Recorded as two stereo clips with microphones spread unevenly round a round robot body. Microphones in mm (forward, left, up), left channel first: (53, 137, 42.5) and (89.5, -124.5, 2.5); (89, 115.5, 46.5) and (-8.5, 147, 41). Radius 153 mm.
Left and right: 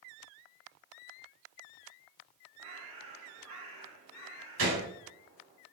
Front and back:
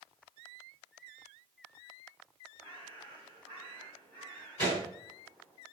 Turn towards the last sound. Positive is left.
turn(degrees=-135)